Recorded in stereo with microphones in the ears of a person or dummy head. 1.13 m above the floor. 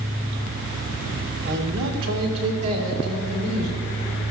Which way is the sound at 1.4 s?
60° right (ahead or behind).